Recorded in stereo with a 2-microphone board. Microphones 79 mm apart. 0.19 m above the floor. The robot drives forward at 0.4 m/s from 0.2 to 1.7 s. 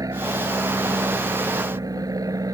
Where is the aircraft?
45° right (ahead or behind); by 2.6 s 50° right (ahead or behind).